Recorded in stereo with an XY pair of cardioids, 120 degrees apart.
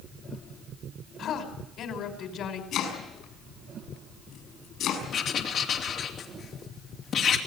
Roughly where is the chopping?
Ahead left.